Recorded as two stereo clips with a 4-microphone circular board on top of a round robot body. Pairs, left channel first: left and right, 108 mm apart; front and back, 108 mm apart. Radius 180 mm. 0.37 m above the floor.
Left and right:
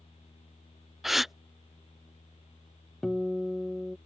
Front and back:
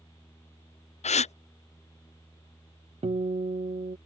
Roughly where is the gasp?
Ahead.